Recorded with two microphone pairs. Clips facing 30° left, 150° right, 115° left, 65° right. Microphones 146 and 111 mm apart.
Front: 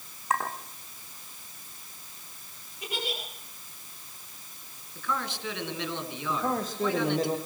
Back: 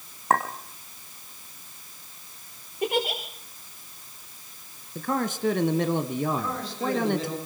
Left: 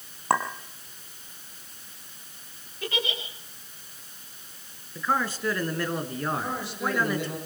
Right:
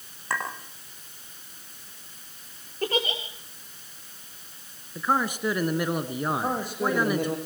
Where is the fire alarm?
I don't hear a fire alarm.